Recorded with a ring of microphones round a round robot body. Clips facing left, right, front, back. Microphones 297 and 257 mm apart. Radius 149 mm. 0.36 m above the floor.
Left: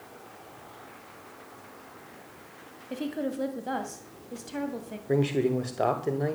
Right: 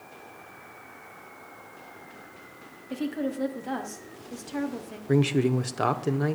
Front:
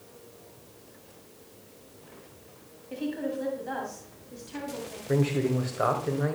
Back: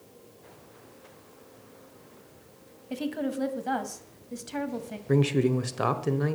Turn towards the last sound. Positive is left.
turn(degrees=-145)